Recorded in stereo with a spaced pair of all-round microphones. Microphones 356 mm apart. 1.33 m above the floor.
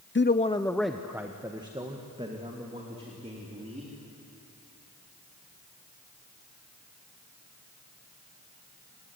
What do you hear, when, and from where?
0.1 s a man speaking: 35° left (ahead or behind), 0.5 m; by 3.9 s 20° right (ahead or behind), 4 m